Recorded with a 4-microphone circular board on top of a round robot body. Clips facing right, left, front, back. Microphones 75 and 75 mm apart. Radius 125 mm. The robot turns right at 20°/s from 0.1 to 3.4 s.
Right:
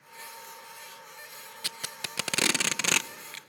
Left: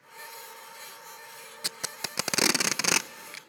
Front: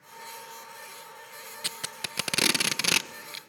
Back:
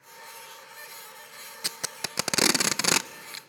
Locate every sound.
1.6 s tape being pulled: 130° left, 0.5 m; by 3.4 s 165° left, 0.5 m